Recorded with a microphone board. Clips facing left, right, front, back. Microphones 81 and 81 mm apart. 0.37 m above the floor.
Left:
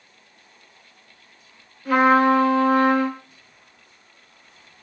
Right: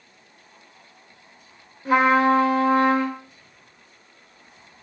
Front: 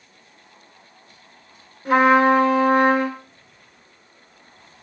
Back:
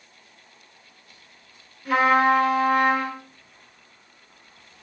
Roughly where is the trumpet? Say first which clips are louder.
Left 1 dB, front 4 dB; ahead right.